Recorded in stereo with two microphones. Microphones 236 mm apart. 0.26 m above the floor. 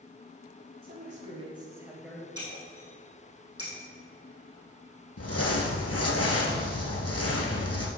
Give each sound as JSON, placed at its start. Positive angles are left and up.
{"t": 0.8, "sound": "a man speaking", "side_deg": -40, "distance_m": 2.0}
{"t": 2.4, "sound": "breaking glass", "side_deg": 75, "distance_m": 3.0}
{"t": 5.2, "sound": "crumpling", "side_deg": 85, "distance_m": 0.9}